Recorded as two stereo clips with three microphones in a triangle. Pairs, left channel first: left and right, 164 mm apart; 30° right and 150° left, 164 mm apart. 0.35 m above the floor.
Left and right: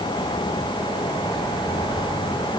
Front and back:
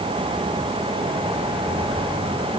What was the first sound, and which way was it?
Only background noise.